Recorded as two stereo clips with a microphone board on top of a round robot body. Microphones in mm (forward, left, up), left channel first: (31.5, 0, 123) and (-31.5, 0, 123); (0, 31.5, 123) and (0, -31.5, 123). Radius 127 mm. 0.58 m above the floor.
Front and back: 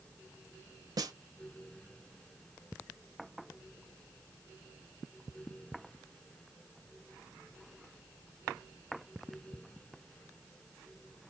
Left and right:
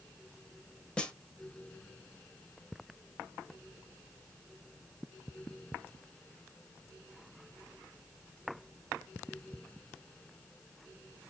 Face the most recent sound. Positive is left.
turn(degrees=165)